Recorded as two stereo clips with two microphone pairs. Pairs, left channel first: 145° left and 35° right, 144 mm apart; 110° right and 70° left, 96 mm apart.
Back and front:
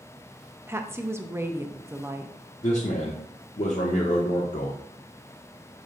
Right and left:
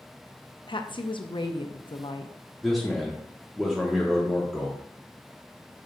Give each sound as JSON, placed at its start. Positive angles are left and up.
{"t": 0.7, "sound": "a woman speaking", "azimuth_deg": -100, "distance_m": 0.7}
{"t": 2.6, "sound": "a man speaking", "azimuth_deg": 160, "distance_m": 1.1}